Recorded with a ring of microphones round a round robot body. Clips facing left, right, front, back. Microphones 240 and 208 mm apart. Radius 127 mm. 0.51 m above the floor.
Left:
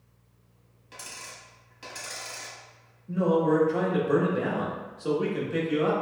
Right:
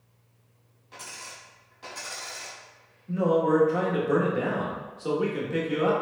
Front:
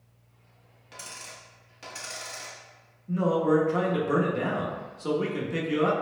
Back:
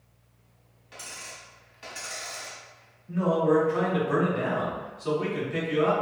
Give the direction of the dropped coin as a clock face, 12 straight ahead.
11 o'clock.